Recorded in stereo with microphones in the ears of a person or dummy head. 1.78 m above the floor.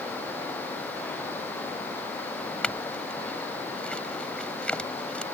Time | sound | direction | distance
2.6 | a clink | 5° left (ahead or behind) | ?